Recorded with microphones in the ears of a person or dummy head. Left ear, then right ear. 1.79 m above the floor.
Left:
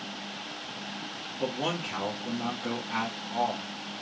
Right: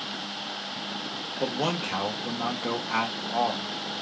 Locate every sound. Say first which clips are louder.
1.4 s a man speaking: right 3 dB; 55° right (ahead or behind), 1.0 m